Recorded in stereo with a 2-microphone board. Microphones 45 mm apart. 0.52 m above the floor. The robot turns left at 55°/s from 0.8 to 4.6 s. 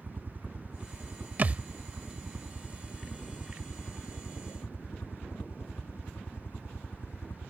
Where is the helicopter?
45° right; by 7.5 s 105° left.